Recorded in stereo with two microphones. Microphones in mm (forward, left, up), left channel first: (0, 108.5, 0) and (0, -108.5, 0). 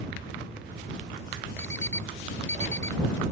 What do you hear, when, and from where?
1.6 s an alarm clock: 65° left (ahead or behind)